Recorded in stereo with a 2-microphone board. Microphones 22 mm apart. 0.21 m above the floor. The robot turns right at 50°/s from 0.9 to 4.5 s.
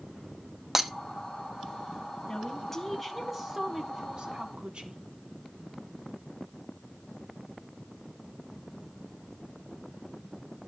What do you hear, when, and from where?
0.8 s breaking glass: 15° right (ahead or behind), 0.9 m
2.3 s a woman speaking: 145° left, 2.5 m; by 5.0 s 105° right, 2.5 m